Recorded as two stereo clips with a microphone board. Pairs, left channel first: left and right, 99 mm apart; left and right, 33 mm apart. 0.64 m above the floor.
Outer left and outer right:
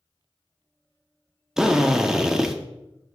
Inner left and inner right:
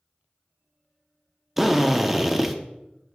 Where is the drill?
5° right (ahead or behind), 0.7 m.